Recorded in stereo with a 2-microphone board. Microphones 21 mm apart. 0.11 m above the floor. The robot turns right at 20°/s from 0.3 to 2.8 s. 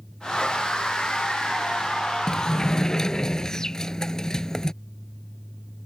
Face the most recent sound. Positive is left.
turn(degrees=35)  # may be behind; listen again after turning